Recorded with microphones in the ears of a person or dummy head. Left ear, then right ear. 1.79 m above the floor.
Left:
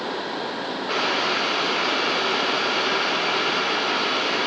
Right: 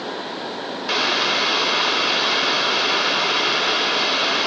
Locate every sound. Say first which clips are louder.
0.9 s boiling: right 4 dB; 35° right (ahead or behind), 2.5 m